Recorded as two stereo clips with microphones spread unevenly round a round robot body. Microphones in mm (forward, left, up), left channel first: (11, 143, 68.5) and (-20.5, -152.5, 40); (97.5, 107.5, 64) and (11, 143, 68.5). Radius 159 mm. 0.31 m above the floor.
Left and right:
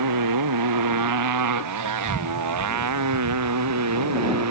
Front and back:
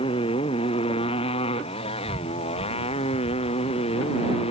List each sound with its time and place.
0.0 s a motorcycle: 75° right; by 4.5 s 60° right